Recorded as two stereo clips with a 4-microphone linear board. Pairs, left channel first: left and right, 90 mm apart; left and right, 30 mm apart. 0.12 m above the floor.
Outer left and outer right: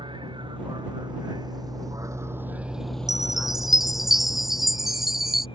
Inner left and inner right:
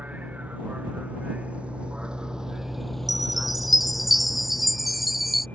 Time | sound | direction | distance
0.0 | a vehicle | 65° right (ahead or behind) | ?
3.1 | a chime | 5° right (ahead or behind) | ?